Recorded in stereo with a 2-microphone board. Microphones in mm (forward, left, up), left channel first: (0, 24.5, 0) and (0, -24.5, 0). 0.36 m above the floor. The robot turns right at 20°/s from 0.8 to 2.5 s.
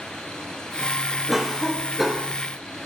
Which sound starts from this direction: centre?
A cough, at 1.3 s.